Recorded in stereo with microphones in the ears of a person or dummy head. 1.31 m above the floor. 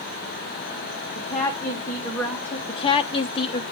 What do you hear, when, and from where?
1.1 s a woman speaking: 10° left (ahead or behind), 1.9 m
2.7 s a woman speaking: 25° left (ahead or behind), 0.6 m